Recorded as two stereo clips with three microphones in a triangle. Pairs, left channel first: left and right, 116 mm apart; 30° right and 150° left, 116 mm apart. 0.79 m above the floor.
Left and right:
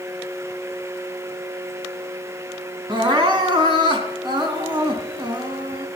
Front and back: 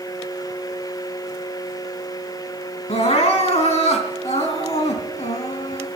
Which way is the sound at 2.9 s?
45° right.